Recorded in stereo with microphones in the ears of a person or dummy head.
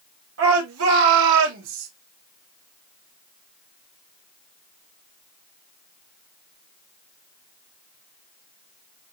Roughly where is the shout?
Right.